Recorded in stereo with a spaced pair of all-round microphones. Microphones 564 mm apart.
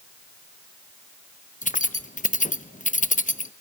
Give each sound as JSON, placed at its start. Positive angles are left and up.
{"t": 1.6, "sound": "keys jangling", "side_deg": 15, "distance_m": 0.7}